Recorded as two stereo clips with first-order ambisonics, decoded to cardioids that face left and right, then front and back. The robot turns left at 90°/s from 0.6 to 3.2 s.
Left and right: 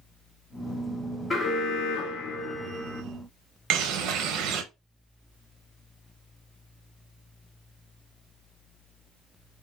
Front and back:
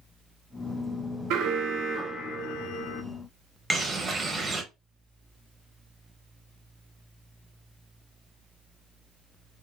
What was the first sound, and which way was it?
An alarm, 165° left.